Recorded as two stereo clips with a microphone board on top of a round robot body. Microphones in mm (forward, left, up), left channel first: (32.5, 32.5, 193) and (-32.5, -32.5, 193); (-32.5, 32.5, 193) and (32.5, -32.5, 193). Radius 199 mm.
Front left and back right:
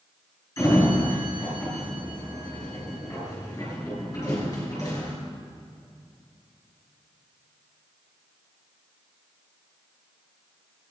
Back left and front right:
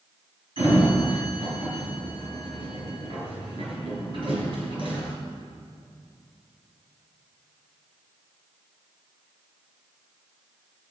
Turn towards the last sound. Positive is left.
turn(degrees=-15)